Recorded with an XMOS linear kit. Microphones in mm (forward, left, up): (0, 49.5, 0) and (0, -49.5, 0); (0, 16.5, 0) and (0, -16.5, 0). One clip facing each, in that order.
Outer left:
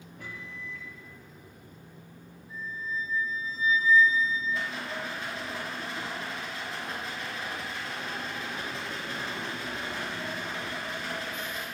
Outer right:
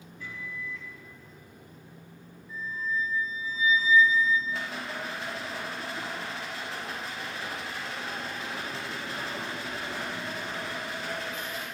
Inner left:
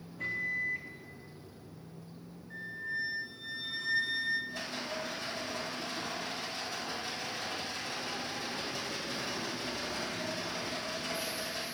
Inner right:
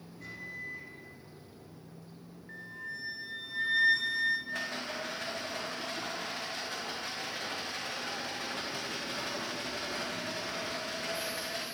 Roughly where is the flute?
Right.